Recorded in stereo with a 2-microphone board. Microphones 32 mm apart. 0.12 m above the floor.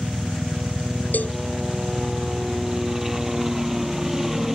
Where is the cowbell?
65° left (ahead or behind).